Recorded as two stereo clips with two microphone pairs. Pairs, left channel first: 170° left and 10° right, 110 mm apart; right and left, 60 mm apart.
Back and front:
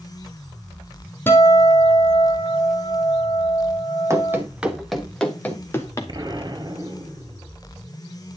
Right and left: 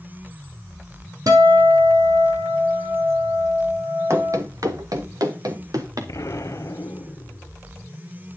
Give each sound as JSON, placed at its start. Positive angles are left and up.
{"t": 1.3, "sound": "a guitar", "azimuth_deg": 100, "distance_m": 2.0}
{"t": 4.1, "sound": "running footsteps", "azimuth_deg": 50, "distance_m": 1.8}
{"t": 6.1, "sound": "an explosion", "azimuth_deg": -60, "distance_m": 1.3}